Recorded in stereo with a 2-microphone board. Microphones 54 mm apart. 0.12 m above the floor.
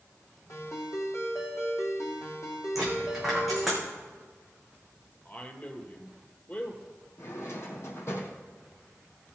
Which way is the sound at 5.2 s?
35° left (ahead or behind).